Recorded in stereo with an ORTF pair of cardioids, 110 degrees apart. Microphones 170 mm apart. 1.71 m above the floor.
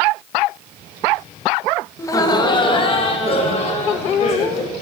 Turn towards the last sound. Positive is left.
turn(degrees=40)